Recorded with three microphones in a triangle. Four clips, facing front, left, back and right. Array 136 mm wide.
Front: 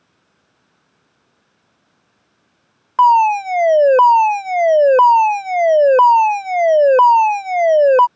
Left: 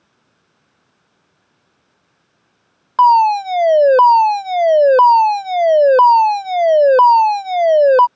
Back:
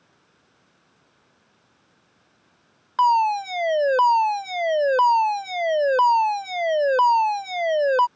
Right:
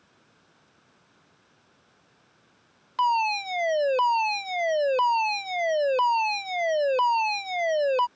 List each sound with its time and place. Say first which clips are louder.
3.0 s a fire alarm: left 14 dB, front 7 dB; 50° left